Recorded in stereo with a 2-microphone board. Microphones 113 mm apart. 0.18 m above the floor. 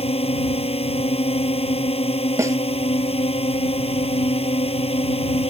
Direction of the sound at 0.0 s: 60° left (ahead or behind).